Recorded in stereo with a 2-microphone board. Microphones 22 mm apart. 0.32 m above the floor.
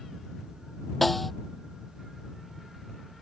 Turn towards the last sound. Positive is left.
turn(degrees=5)  # may be behind; listen again after turning